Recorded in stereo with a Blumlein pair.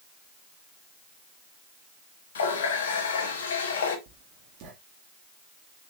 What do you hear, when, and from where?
2.4 s a running tap: 65° left, 1.8 m
4.1 s writing: 40° right, 2 m